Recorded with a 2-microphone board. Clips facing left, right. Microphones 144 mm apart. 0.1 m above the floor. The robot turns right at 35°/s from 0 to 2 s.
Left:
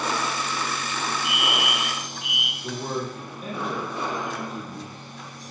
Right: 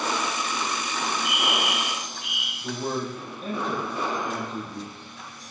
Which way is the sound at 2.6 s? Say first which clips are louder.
Right 1 dB; 5° left (ahead or behind).